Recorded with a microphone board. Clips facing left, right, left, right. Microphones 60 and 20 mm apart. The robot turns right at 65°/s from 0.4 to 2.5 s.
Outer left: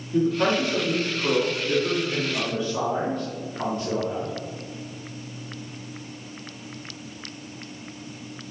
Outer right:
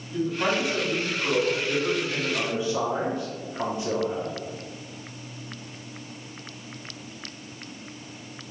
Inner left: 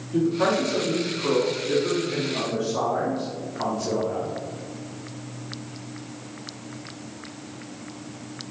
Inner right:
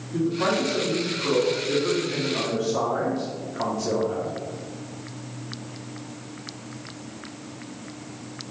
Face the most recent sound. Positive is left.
turn(degrees=-155)